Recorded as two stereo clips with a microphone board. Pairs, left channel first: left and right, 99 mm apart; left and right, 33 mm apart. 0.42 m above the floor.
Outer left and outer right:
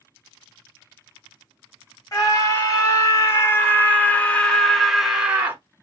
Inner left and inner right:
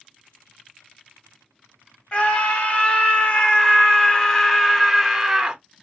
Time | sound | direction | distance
2.1 | a scream | 35° left (ahead or behind) | 2.0 m